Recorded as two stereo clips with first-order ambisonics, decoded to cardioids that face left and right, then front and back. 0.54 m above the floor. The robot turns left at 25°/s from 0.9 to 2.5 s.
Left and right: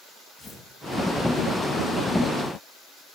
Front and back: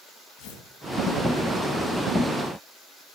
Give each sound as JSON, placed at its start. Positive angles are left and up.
{"t": 0.4, "sound": "tearing paper", "azimuth_deg": 0, "distance_m": 2.5}